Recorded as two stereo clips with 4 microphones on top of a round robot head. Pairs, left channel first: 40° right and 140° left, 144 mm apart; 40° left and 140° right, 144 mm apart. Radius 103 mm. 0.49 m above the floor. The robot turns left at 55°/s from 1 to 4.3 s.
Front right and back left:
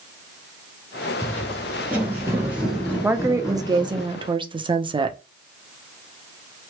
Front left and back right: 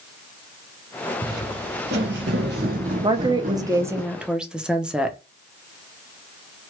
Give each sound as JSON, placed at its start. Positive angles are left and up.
{"t": 1.2, "sound": "footsteps", "azimuth_deg": -110, "distance_m": 1.3}
{"t": 3.0, "sound": "a woman speaking", "azimuth_deg": -150, "distance_m": 0.7}